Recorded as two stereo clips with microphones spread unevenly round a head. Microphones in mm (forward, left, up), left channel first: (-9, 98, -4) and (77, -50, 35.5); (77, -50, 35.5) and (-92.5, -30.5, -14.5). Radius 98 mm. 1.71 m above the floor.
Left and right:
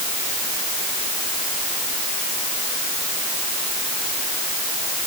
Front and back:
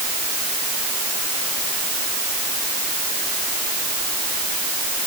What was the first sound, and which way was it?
Only background noise.